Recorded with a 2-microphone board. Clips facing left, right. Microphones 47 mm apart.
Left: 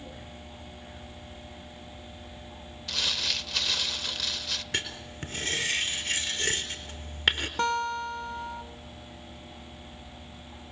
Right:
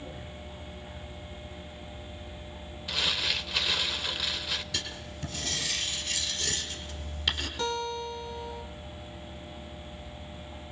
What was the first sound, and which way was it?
Crumpling, 10° right (ahead or behind).